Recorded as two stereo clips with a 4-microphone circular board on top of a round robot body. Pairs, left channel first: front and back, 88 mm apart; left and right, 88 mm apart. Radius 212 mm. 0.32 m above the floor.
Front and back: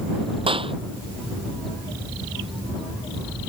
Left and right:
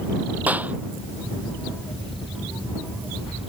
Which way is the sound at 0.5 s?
160° right.